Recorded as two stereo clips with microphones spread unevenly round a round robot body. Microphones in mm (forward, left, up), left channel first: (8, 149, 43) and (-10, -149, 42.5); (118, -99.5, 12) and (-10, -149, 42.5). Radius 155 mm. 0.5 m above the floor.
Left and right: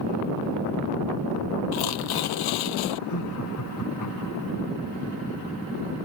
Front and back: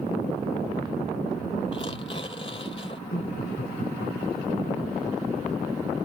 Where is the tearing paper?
95° left.